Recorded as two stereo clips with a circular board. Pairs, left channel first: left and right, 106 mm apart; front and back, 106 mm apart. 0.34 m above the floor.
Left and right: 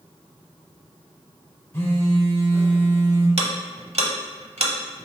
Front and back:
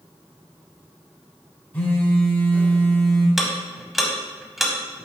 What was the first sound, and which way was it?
A phone buzzing, 55° left.